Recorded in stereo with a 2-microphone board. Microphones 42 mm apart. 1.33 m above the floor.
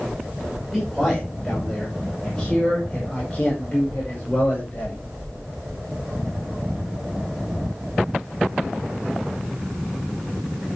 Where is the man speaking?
5° left (ahead or behind), 5.5 m; by 5.0 s 30° left (ahead or behind), 5.5 m.